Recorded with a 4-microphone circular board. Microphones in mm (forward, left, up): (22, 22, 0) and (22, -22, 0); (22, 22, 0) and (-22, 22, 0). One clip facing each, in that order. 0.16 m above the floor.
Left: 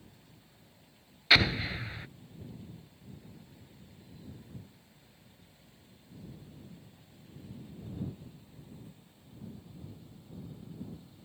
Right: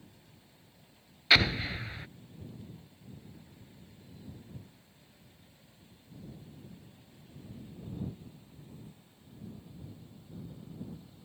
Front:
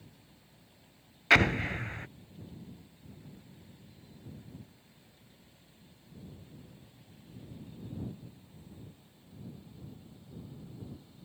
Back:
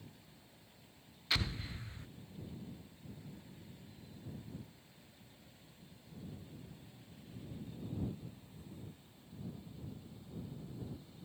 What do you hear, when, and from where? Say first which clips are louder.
1.3 s an explosion: even, front 15 dB; straight ahead